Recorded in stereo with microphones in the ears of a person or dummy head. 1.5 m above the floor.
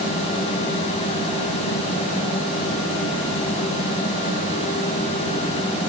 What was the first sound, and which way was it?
Only background noise.